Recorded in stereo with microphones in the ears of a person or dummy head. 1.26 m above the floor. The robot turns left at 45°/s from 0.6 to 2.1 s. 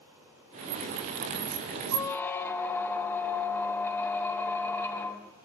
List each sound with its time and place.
1.9 s a squeak: 25° left (ahead or behind), 0.7 m; by 5.3 s 15° left (ahead or behind), 0.7 m